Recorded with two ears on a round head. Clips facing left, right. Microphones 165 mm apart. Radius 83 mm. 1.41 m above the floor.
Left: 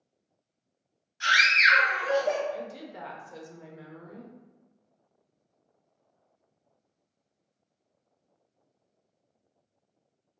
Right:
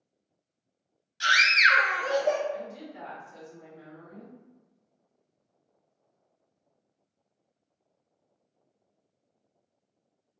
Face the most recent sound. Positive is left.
turn(degrees=60)  # may be behind; listen again after turning